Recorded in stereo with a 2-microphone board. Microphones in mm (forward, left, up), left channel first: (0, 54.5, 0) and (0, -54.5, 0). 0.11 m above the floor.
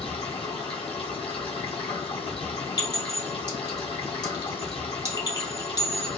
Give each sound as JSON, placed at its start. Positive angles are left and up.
{"t": 0.0, "sound": "running water", "side_deg": 60, "distance_m": 1.3}
{"t": 2.8, "sound": "a clink", "side_deg": 40, "distance_m": 1.7}